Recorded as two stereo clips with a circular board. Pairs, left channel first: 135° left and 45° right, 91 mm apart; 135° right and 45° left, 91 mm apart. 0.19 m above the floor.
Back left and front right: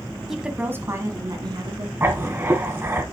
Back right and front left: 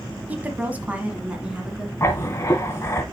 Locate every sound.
0.3 s a woman speaking: 35° left, 1.2 m; by 1.9 s 35° right, 2.5 m
2.0 s writing: 95° right, 1.2 m